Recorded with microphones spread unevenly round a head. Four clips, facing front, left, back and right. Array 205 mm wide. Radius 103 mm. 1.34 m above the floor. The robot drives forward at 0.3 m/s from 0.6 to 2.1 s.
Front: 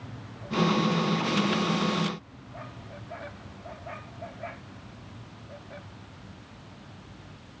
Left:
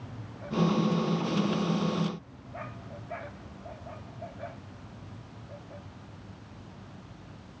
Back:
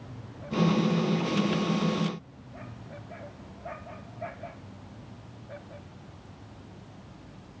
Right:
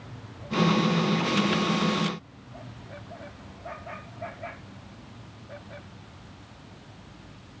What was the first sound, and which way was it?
Only background noise.